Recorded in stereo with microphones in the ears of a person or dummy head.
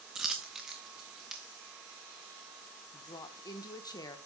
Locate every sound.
0.1 s a dropped coin: 5° right (ahead or behind), 1.0 m
2.9 s a woman speaking: 20° left (ahead or behind), 1.1 m